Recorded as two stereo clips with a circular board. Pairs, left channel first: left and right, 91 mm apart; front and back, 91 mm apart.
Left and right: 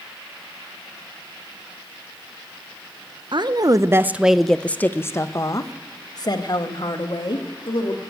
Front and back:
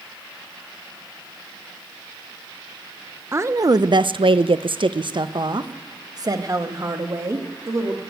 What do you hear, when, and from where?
3.3 s a woman speaking: 120° right, 0.6 m; by 8.0 s 125° left, 2 m